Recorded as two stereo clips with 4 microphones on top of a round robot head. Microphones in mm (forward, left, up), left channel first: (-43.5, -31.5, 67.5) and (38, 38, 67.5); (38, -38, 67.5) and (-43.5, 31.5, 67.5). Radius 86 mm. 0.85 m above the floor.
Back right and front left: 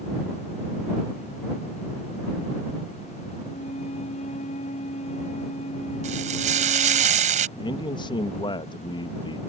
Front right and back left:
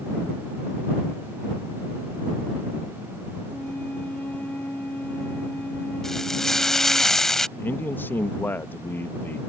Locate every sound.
3.5 s a flute: 115° right
6.0 s frying: 45° left
7.6 s a man speaking: 110° right